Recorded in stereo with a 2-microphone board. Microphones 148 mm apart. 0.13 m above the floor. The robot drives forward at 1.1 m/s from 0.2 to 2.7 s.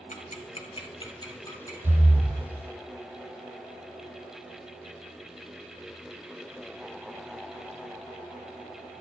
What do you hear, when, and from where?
0.1 s ticking: 55° left (ahead or behind), 0.9 m; by 1.7 s 20° left (ahead or behind), 2 m
1.8 s breathing: 60° right (ahead or behind), 1.4 m; by 2.4 s 40° right (ahead or behind), 1.8 m